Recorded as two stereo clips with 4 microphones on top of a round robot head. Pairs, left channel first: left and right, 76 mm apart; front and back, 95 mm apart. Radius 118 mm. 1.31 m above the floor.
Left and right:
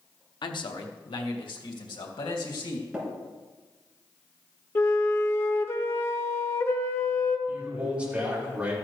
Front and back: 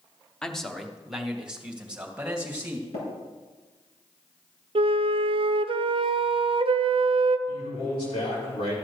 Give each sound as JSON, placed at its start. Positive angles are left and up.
{"t": 0.4, "sound": "a man speaking", "azimuth_deg": 85, "distance_m": 1.2}
{"t": 2.9, "sound": "tapping", "azimuth_deg": -10, "distance_m": 4.5}
{"t": 4.8, "sound": "a flute", "azimuth_deg": 150, "distance_m": 0.5}
{"t": 7.5, "sound": "a man speaking", "azimuth_deg": -15, "distance_m": 5.5}